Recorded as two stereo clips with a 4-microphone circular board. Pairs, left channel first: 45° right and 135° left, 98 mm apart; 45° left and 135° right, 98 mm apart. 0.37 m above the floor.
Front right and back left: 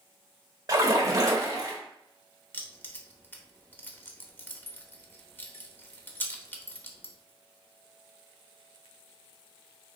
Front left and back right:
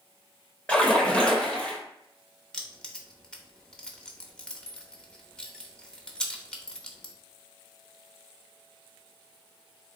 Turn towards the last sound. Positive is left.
turn(degrees=-20)